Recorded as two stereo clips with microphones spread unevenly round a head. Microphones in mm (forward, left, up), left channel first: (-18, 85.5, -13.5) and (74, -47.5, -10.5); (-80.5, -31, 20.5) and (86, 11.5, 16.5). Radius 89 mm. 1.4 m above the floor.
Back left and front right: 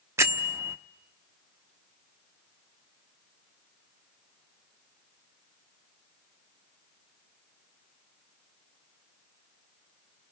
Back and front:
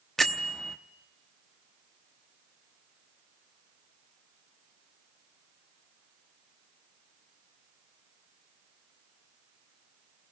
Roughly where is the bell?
Right.